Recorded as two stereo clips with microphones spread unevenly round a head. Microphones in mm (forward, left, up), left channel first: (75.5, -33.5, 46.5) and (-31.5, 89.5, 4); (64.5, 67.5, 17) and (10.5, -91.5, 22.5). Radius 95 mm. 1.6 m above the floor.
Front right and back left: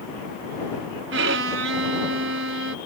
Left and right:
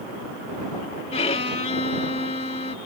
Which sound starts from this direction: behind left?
A violin, at 1.1 s.